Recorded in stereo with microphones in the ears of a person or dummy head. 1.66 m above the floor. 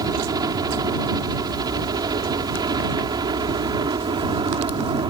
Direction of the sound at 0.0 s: 20° right (ahead or behind).